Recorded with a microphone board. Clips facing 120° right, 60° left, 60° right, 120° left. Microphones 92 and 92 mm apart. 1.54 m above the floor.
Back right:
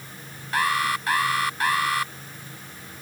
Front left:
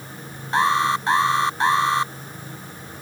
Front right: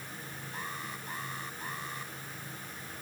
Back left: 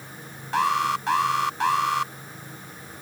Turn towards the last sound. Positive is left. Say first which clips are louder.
# front left 5 dB, back left 20 dB
turn(degrees=125)